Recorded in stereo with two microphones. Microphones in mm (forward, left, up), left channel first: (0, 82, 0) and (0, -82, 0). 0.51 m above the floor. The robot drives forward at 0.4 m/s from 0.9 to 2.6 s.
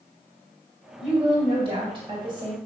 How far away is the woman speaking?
About 2 m.